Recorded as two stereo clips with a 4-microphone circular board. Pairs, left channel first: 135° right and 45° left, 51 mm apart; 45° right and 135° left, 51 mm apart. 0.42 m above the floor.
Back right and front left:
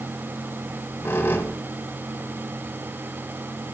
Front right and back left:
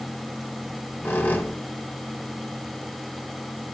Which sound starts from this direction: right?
A squeak, at 0.6 s.